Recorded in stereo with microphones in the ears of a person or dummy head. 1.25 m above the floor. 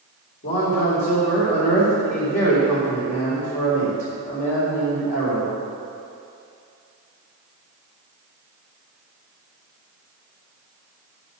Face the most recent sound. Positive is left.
turn(degrees=50)  # may be behind; listen again after turning